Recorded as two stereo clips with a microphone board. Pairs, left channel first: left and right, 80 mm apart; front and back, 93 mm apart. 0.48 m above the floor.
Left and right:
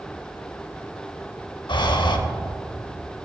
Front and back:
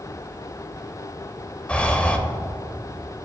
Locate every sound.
1.7 s breathing: 75° left, 0.5 m